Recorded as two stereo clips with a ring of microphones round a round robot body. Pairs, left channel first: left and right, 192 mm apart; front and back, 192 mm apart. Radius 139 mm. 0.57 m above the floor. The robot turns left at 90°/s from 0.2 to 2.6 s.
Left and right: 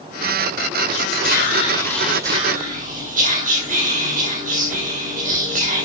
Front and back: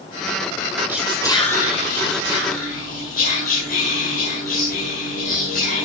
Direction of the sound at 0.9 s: 105° left.